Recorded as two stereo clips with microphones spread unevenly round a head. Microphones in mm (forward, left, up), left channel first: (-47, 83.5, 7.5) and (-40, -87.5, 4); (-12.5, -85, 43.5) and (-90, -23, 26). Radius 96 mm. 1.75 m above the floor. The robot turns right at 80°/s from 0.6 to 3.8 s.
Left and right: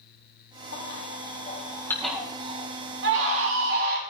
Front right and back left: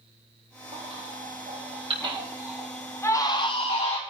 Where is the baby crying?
75° left, 4 m; by 4.0 s 40° right, 4 m.